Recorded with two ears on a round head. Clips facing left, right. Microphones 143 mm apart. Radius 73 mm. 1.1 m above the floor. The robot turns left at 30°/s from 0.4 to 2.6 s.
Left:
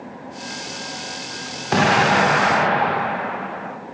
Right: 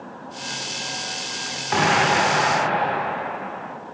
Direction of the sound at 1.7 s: 45° left (ahead or behind).